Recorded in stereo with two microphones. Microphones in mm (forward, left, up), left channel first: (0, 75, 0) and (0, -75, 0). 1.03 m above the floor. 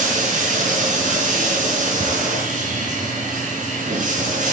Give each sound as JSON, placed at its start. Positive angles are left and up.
{"t": 0.0, "sound": "running water", "side_deg": -60, "distance_m": 6.5}
{"t": 2.0, "sound": "ticking", "side_deg": -20, "distance_m": 4.5}